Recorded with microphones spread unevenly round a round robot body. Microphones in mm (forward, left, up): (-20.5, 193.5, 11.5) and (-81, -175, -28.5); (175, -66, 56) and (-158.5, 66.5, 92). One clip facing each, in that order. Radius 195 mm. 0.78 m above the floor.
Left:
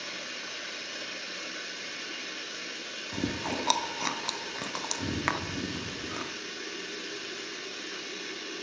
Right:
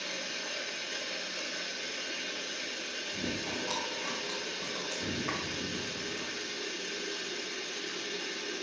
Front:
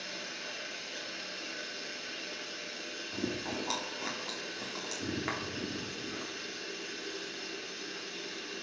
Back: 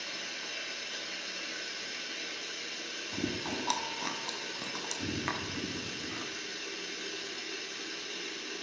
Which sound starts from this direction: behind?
Running water, at 0.0 s.